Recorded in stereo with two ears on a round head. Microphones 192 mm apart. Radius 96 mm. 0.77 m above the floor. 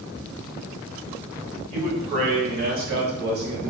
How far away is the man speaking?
About 1.8 m.